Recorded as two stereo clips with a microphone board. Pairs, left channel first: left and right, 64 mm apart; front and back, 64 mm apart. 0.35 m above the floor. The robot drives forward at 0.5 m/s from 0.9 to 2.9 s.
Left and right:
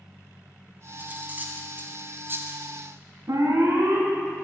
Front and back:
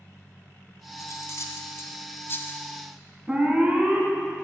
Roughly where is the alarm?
Right.